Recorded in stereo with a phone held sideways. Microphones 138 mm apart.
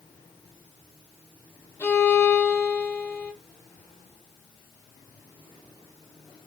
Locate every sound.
1.8 s a violin: 15° left (ahead or behind), 0.8 m